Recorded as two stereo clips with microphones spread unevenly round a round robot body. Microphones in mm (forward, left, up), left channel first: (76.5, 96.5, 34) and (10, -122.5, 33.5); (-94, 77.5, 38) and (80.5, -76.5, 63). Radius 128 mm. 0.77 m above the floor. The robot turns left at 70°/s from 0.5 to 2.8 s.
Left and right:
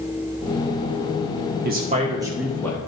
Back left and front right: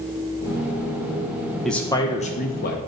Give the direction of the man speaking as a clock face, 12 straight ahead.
5 o'clock.